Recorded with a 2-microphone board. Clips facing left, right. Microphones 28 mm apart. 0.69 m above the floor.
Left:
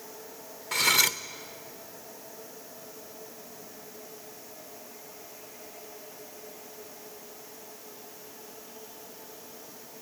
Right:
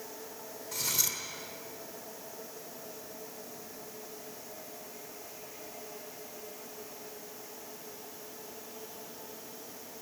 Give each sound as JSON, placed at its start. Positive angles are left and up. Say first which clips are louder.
{"t": 0.7, "sound": "cutlery clinking", "louder": "left 10 dB", "side_deg": 80, "distance_m": 1.0}